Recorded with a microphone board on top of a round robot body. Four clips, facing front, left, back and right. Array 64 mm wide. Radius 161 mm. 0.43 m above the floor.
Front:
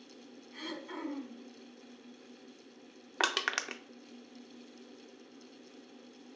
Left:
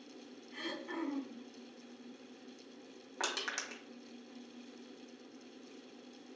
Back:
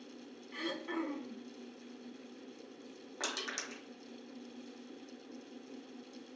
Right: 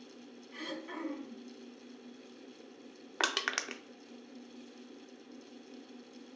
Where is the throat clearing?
165° right, 1.2 m.